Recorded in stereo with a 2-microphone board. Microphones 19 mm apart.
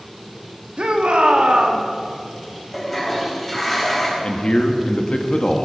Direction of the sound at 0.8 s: 70° right (ahead or behind).